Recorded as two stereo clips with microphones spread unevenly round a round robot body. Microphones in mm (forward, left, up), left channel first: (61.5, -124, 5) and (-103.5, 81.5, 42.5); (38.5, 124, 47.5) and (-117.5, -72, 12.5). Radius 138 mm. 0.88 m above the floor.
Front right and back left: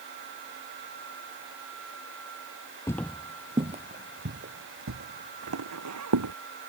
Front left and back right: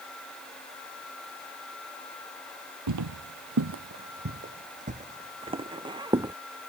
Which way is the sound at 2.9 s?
135° right.